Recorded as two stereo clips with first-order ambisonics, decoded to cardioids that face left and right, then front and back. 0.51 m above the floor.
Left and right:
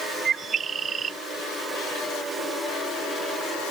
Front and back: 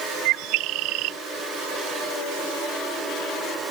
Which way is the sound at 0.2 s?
160° right.